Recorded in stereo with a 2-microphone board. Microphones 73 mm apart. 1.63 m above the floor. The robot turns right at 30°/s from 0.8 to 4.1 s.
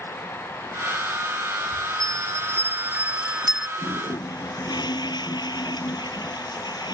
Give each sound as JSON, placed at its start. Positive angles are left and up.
{"t": 2.0, "sound": "a bell", "azimuth_deg": -55}
{"t": 3.8, "sound": "a toilet flushing", "side_deg": 70}